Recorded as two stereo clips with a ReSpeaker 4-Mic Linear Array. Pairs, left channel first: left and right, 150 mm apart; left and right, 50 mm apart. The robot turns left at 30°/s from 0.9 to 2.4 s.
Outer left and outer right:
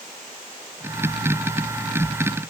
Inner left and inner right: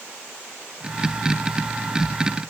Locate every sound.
Only background noise.